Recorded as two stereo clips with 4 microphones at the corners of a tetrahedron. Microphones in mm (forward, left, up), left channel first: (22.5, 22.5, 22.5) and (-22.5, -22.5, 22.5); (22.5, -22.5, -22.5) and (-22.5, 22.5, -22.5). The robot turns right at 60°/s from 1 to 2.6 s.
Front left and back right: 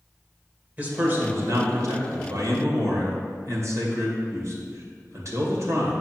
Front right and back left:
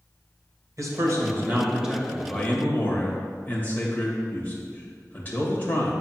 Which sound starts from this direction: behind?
A man speaking, at 0.8 s.